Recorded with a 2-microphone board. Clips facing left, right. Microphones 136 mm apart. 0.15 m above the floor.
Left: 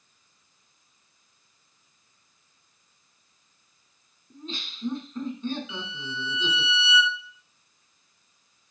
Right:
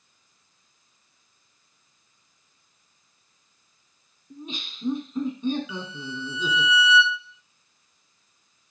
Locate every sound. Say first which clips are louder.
4.3 s laughter: right 1 dB; 15° right (ahead or behind), 1.1 m
5.7 s a violin: right 3 dB; 30° left (ahead or behind), 0.8 m